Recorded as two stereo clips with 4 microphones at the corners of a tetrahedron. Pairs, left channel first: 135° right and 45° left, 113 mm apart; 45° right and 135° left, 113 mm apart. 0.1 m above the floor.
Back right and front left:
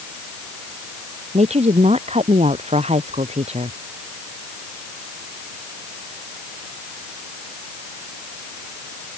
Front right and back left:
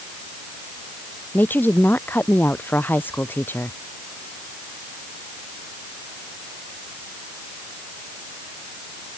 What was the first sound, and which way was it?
A woman speaking, 30° left.